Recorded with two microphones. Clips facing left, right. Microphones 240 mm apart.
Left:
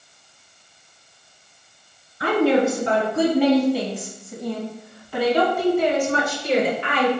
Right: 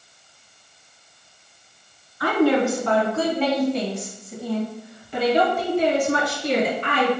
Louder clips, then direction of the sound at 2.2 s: Left 1 dB; 30° left (ahead or behind).